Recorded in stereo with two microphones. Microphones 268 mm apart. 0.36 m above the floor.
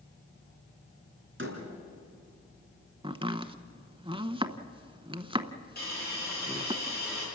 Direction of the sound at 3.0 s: 20° right (ahead or behind).